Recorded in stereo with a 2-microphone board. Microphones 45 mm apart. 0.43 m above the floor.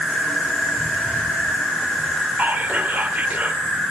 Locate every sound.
0.0 s an insect: centre (ahead or behind), 5.5 m
2.4 s whispering: 40° right (ahead or behind), 1.0 m